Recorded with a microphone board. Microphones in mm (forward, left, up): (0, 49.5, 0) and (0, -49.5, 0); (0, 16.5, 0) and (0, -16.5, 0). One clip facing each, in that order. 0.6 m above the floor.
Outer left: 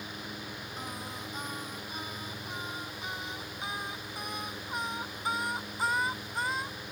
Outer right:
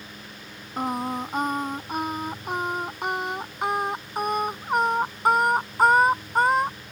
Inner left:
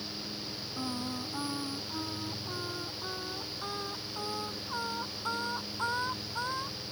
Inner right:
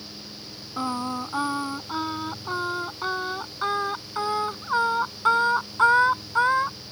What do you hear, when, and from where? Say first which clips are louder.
0.8 s singing: outer right 17 dB, inner right 10 dB; 60° right (ahead or behind)